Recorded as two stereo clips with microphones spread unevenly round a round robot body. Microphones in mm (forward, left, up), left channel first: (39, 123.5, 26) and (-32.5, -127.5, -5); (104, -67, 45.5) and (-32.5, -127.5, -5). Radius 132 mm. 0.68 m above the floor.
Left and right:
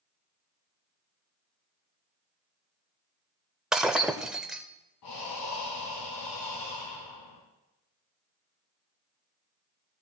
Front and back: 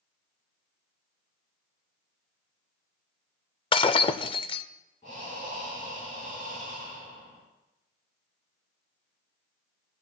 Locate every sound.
3.7 s breaking glass: 15° right, 0.5 m
5.0 s breathing: 85° left, 2.5 m